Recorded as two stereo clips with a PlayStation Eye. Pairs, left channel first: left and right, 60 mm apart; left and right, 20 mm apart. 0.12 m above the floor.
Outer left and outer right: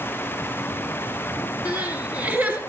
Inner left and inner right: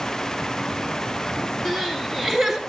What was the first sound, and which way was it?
Crying, 25° right (ahead or behind).